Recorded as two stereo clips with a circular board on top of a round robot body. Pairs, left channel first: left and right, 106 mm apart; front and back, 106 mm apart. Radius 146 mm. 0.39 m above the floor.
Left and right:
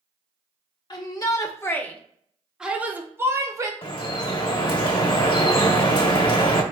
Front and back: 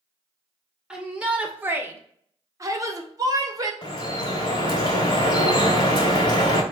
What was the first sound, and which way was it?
A shout, 100° left.